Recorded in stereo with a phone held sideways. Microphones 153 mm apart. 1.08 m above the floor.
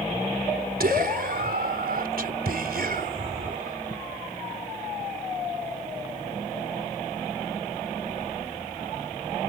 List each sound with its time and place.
0.8 s whispering: 80° right